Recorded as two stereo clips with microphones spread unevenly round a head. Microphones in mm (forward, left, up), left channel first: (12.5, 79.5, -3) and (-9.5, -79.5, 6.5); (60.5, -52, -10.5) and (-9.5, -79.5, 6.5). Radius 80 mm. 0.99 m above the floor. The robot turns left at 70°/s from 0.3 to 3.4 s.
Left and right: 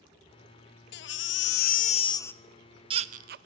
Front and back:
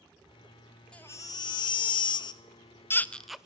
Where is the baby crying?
100° left, 0.5 m; by 3.5 s 70° right, 0.5 m.